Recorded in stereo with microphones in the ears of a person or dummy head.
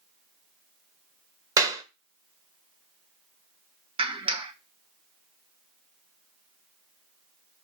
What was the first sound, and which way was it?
A clap, 25° right (ahead or behind).